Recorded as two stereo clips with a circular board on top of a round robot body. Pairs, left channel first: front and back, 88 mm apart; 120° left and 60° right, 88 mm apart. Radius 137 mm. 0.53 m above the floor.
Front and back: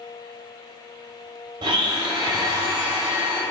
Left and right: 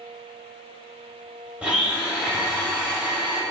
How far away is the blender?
About 0.6 m.